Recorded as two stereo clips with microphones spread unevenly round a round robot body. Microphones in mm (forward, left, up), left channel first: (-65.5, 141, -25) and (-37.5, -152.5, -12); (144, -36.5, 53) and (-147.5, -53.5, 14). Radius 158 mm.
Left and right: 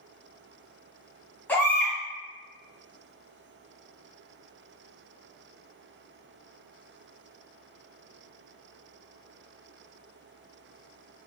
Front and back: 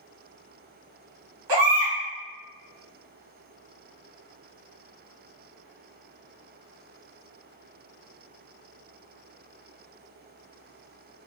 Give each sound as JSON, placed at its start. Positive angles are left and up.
{"t": 1.5, "sound": "a baby crying", "azimuth_deg": 180, "distance_m": 1.6}